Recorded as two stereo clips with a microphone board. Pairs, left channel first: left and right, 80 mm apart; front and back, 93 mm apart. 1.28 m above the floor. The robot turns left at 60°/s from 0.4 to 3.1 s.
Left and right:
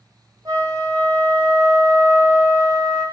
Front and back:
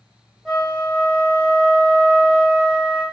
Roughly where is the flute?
Right.